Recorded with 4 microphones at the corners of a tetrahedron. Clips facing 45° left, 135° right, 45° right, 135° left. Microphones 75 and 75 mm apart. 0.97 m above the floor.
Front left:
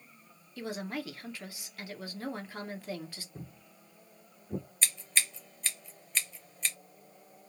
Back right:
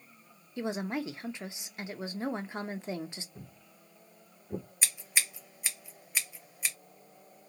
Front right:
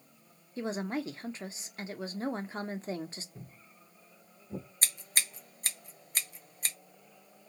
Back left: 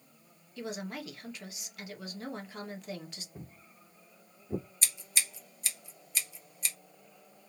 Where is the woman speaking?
80° right, 0.7 m.